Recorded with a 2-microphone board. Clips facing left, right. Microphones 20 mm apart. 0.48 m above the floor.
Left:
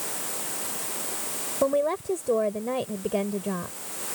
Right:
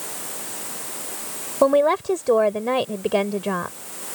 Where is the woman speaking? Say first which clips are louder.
Right 7 dB; 50° right (ahead or behind).